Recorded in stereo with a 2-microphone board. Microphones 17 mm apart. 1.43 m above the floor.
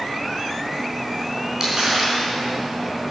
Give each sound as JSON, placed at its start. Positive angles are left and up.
{"t": 1.6, "sound": "crumpling", "side_deg": -20, "distance_m": 5.0}